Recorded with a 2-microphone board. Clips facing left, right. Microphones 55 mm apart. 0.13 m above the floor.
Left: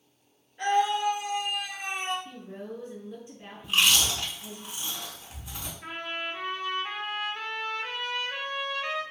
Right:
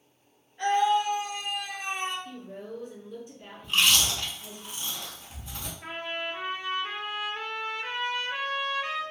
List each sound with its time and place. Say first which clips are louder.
0.6 s a scream: right 1 dB; 10° left (ahead or behind), 1.9 m
2.2 s a woman speaking: even; 25° left (ahead or behind), 1.3 m
3.6 s chewing: even; 10° left (ahead or behind), 0.8 m
5.8 s a trumpet: right 1 dB; 10° right (ahead or behind), 0.5 m